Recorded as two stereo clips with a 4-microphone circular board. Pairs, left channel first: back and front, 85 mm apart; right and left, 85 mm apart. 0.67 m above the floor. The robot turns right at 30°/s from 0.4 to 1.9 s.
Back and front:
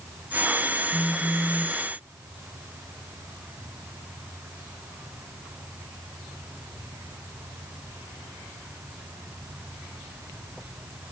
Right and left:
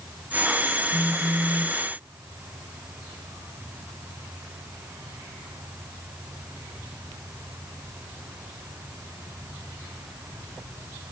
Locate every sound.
0.9 s a phone buzzing: 45° left; by 1.8 s 75° left